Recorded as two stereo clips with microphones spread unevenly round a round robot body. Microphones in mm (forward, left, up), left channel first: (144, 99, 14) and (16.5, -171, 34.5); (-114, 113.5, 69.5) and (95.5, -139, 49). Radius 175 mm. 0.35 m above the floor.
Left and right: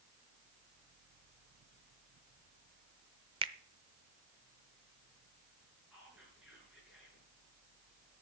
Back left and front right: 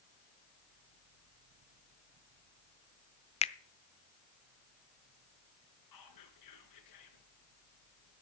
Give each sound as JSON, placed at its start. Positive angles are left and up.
{"t": 3.4, "sound": "a finger snap", "azimuth_deg": -175, "distance_m": 0.7}
{"t": 5.9, "sound": "whispering", "azimuth_deg": 155, "distance_m": 5.0}